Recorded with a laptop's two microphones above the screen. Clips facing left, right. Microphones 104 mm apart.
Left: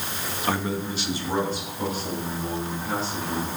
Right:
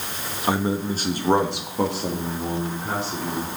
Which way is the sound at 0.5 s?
15° right (ahead or behind).